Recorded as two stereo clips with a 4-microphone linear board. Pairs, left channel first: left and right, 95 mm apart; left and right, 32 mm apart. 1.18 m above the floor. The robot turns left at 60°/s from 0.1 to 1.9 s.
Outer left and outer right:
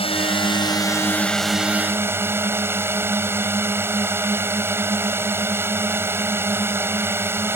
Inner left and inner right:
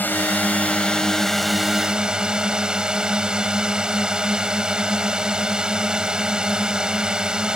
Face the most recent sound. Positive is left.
turn(degrees=-25)